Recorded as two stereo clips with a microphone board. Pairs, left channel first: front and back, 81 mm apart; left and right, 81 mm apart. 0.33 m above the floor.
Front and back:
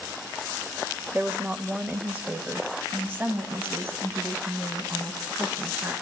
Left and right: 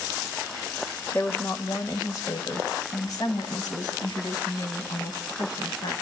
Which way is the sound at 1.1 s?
125° left.